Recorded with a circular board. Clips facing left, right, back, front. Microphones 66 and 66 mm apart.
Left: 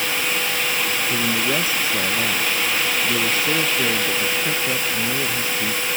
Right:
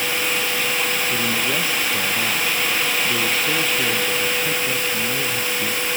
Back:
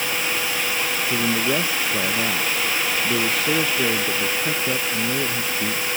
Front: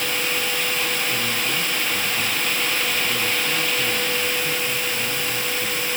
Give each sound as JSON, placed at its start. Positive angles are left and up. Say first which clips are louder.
{"t": 1.1, "sound": "a man speaking", "louder": "left 1 dB, back 3 dB", "azimuth_deg": 165}